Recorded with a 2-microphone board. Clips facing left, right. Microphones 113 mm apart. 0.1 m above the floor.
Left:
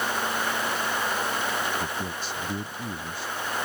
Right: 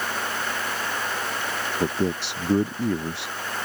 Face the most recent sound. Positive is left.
turn(degrees=-75)  # may be behind; listen again after turning